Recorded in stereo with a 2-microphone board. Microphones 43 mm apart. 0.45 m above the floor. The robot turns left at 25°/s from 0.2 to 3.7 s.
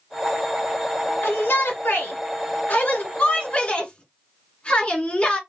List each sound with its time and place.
1.2 s a shout: 95° left, 1.8 m; by 5.4 s 30° left, 1.8 m